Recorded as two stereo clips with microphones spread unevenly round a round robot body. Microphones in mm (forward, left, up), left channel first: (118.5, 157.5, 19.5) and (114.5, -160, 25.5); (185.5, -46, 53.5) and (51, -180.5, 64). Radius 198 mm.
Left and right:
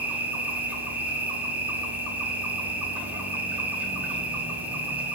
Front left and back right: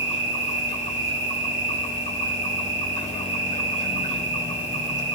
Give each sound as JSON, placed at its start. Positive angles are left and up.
{"t": 0.0, "sound": "an insect", "azimuth_deg": -5, "distance_m": 5.0}